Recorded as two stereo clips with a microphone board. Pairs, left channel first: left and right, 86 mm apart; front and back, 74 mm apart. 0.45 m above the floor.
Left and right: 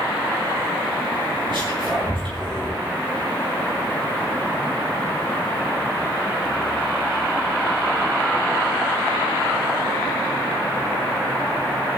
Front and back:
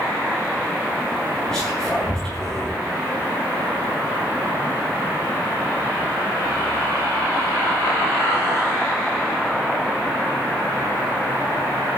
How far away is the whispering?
About 5 m.